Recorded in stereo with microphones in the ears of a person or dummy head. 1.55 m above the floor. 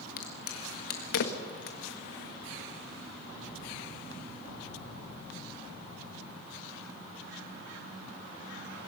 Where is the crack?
55° left (ahead or behind), 1.4 m.